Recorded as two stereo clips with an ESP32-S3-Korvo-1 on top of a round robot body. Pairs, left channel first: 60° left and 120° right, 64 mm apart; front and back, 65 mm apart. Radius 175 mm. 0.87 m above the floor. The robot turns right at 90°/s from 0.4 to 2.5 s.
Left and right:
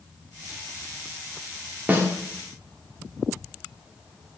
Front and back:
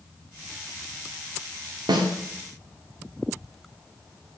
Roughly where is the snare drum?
Behind.